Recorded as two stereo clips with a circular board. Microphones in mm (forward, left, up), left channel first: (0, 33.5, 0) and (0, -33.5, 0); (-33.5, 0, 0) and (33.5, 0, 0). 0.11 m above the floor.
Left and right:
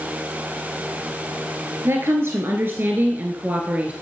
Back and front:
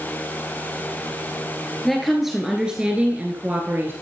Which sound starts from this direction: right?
A woman speaking, at 1.9 s.